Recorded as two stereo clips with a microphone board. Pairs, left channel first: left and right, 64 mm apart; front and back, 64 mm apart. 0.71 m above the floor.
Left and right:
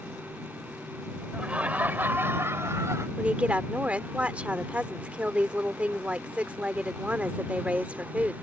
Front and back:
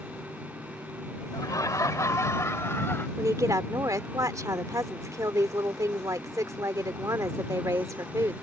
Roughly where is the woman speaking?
Behind.